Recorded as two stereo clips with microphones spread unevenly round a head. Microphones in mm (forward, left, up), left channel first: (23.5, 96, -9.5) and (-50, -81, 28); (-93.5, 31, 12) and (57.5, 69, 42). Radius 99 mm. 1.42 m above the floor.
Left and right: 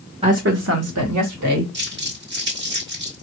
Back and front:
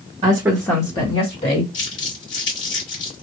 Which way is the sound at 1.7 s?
145° right.